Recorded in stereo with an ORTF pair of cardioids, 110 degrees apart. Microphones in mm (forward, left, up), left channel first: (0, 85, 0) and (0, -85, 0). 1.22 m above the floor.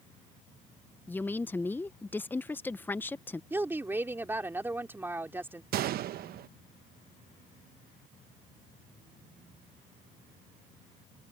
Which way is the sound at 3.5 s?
15° right.